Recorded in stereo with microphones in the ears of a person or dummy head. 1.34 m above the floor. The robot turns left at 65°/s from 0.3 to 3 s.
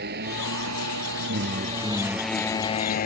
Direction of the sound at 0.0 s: 50° right.